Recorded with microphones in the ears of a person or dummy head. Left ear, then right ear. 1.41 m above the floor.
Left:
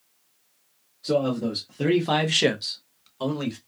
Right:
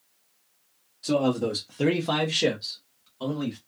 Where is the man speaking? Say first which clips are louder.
Even; 50° right (ahead or behind), 0.9 m; by 3.6 s 70° left (ahead or behind), 1.2 m.